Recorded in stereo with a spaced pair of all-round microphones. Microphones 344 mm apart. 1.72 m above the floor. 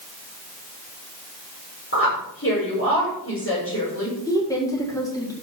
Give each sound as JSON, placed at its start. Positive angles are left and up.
{"t": 1.9, "sound": "a woman speaking", "side_deg": 35, "distance_m": 6.5}
{"t": 4.3, "sound": "a woman speaking", "side_deg": 10, "distance_m": 4.5}